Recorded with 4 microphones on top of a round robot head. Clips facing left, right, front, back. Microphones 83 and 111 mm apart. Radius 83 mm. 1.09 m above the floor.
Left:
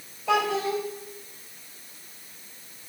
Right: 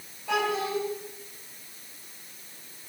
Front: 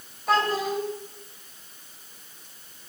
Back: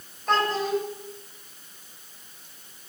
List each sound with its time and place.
0.3 s a child speaking: 85° left, 3.5 m